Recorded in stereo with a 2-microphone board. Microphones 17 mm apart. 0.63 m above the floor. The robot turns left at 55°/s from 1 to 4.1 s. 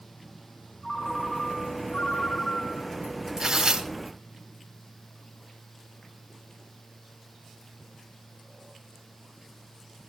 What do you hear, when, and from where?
0.8 s a ringtone: 155° left, 5 m; by 3.0 s 45° left, 5 m
3.4 s tearing paper: 35° right (ahead or behind), 3 m; by 3.9 s 60° right (ahead or behind), 3 m